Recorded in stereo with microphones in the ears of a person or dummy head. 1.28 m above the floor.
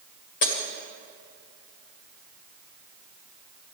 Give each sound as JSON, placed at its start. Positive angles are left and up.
{"t": 0.4, "sound": "breaking glass", "side_deg": 60, "distance_m": 2.0}